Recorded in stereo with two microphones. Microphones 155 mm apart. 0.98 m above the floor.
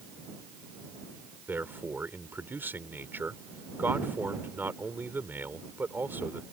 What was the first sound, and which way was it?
A man speaking, 15° right (ahead or behind).